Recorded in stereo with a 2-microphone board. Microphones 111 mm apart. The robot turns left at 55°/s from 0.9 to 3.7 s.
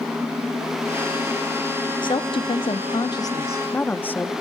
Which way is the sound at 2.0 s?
115° left.